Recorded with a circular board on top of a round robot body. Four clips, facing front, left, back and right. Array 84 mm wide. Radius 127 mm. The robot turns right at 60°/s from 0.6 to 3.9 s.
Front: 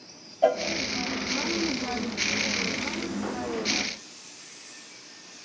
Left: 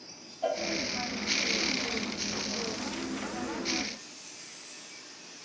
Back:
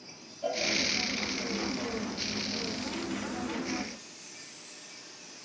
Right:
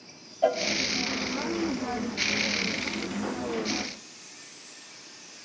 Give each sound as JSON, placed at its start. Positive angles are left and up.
{"t": 0.4, "sound": "a cowbell", "azimuth_deg": -30, "distance_m": 1.1}